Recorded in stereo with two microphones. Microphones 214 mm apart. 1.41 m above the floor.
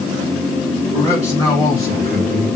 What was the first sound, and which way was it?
A man speaking, 15° left (ahead or behind).